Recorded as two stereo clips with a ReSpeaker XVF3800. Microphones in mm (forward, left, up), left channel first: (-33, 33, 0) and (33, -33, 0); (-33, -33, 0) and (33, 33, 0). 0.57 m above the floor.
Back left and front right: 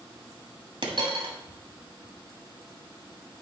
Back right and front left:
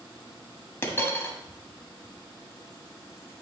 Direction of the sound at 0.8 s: 70° right.